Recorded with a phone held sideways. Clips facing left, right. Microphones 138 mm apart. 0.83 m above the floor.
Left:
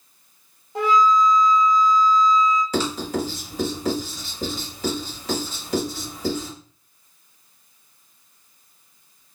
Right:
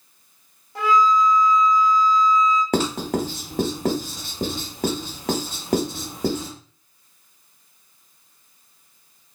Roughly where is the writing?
Right.